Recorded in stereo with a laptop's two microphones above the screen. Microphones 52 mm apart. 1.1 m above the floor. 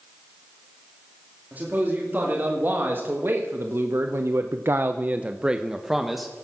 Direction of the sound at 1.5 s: 35° right (ahead or behind).